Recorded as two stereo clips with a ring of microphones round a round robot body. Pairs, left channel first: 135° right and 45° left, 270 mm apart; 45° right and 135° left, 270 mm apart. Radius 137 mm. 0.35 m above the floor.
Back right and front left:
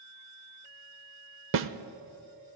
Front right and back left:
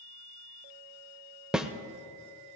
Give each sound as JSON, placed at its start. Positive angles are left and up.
{"t": 1.5, "sound": "a snare drum", "azimuth_deg": 50, "distance_m": 0.6}